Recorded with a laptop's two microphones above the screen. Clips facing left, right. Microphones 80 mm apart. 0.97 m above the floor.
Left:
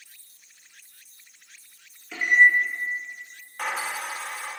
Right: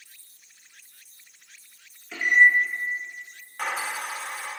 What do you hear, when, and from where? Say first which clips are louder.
2.1 s a microwave: even; 5° left (ahead or behind), 1.1 m
3.6 s a dropped coin: even; 10° right (ahead or behind), 0.9 m